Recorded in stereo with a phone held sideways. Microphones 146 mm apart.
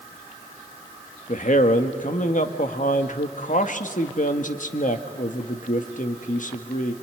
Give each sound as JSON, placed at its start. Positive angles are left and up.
{"t": 1.3, "sound": "a man speaking", "side_deg": 60, "distance_m": 1.4}